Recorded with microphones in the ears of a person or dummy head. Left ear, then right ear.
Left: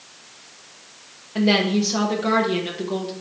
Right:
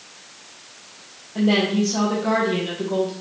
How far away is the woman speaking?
About 0.9 m.